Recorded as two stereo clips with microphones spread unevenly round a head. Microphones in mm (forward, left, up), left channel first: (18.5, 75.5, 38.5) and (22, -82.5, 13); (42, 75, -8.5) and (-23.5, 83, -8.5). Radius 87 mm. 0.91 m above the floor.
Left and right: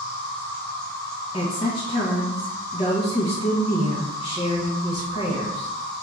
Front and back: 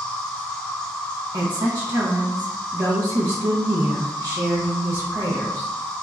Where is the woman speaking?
155° left, 0.6 m.